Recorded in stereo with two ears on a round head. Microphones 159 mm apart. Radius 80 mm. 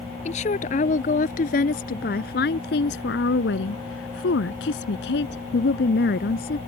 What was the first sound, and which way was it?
A woman speaking, 40° left (ahead or behind).